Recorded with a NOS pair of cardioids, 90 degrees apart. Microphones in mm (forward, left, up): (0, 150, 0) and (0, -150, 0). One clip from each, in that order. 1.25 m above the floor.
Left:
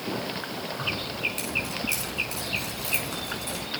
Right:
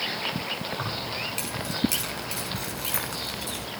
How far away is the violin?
I don't hear a violin.